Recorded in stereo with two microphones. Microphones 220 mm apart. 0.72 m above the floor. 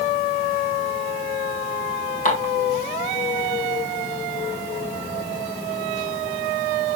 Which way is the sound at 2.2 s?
35° left (ahead or behind).